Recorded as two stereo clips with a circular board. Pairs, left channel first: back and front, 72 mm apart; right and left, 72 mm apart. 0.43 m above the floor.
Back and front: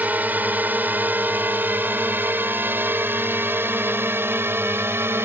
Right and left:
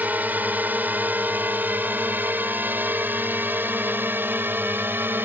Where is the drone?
45° left; by 5.2 s 40° left.